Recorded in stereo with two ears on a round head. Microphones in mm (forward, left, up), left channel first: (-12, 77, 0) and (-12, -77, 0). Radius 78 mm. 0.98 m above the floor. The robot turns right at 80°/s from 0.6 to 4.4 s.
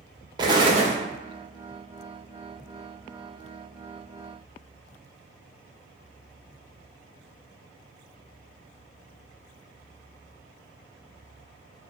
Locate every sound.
0.4 s an explosion: 25° right (ahead or behind), 0.6 m; by 1.0 s 55° right (ahead or behind), 0.6 m